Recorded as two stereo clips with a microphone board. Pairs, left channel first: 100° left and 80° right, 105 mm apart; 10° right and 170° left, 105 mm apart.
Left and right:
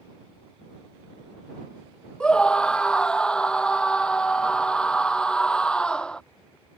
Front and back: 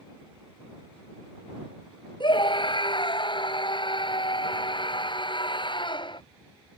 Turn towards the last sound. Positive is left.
turn(degrees=20)